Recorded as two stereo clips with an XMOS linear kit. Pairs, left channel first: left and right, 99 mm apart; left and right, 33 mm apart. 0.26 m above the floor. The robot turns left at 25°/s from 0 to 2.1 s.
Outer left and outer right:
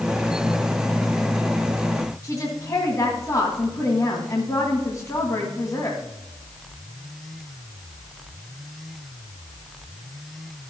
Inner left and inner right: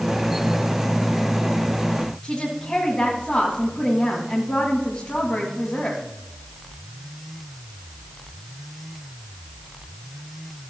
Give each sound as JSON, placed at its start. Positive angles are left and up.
{"t": 2.2, "sound": "a woman speaking", "side_deg": 35, "distance_m": 2.0}